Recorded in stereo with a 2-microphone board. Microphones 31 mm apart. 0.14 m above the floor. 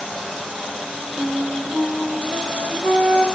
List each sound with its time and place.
1.2 s a flute: 60° right (ahead or behind), 5.5 m